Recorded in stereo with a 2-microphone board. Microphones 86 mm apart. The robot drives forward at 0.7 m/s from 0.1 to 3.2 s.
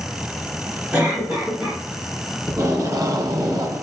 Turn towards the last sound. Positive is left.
turn(degrees=-50)  # may be behind; listen again after turning